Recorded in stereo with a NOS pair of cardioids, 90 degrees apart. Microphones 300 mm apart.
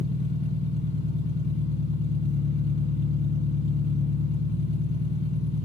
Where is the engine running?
35° left, 1.8 m.